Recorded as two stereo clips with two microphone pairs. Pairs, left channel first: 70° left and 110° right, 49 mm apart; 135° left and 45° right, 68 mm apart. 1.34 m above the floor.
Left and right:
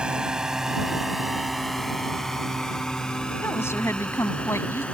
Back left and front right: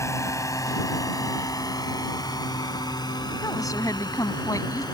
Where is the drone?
Straight behind; by 5.0 s 140° left.